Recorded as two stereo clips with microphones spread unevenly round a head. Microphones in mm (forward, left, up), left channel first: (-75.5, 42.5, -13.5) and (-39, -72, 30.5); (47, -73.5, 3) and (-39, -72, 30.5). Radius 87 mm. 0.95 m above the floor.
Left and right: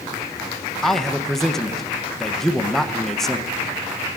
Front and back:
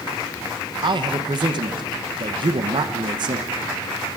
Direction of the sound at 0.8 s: 160° left.